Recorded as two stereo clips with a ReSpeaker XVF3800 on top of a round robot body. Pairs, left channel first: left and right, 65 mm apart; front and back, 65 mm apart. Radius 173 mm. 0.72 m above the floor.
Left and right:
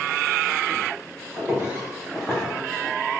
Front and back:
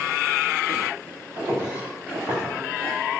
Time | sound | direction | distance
1.4 | footsteps | 150° right | 1.8 m